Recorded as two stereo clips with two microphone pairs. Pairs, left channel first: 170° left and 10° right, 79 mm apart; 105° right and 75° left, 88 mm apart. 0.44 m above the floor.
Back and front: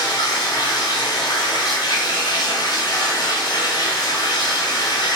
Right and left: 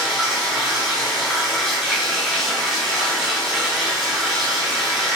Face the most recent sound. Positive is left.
turn(degrees=165)